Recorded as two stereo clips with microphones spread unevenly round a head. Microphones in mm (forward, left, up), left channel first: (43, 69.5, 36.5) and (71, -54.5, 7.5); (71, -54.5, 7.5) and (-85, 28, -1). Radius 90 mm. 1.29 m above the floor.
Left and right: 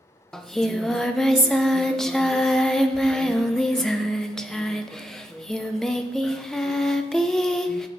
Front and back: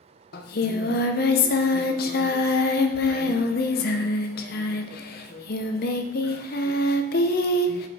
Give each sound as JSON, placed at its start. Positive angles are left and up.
{"t": 0.3, "sound": "singing", "azimuth_deg": 15, "distance_m": 0.7}